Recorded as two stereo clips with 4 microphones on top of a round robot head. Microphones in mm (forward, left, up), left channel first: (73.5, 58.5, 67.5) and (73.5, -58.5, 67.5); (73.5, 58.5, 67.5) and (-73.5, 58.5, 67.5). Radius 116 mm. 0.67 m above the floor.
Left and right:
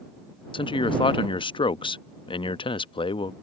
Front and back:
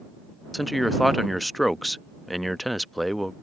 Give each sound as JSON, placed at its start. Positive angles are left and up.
{"t": 0.5, "sound": "a man speaking", "azimuth_deg": 90}